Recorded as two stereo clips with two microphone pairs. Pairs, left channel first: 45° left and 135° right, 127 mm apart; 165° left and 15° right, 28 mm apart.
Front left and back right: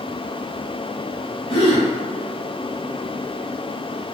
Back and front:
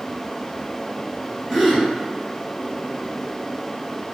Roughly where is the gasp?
Ahead left.